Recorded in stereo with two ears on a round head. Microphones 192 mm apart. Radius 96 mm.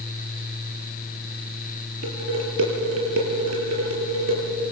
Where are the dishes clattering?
75° right (ahead or behind), 6.5 m.